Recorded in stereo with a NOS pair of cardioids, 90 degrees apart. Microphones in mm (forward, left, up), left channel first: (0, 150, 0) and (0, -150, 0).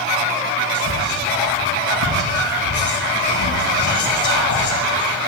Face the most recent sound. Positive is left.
turn(degrees=70)